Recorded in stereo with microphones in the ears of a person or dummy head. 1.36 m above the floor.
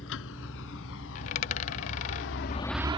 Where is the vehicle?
70° left (ahead or behind); by 3.0 s 30° right (ahead or behind).